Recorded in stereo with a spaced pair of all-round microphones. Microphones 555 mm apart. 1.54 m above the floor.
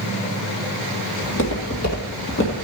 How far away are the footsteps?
About 2.5 m.